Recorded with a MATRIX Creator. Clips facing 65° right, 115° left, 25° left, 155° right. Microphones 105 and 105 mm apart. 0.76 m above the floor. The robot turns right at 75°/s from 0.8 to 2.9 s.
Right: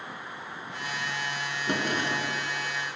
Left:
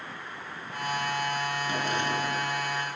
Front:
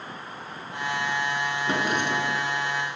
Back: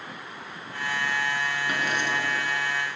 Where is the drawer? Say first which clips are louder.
Right 3 dB, front 4 dB; 40° right, 4 m; by 2.5 s 20° left, 4 m.